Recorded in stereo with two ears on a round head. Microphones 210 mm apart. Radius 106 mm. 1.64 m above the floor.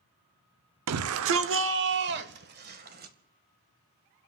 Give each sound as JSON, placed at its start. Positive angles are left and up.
{"t": 0.9, "sound": "a shout", "side_deg": -75, "distance_m": 0.7}